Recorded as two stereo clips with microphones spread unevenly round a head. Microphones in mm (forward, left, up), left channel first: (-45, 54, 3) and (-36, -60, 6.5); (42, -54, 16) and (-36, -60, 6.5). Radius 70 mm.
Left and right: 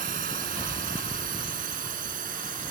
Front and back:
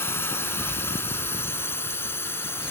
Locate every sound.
0.0 s a drone: 55° right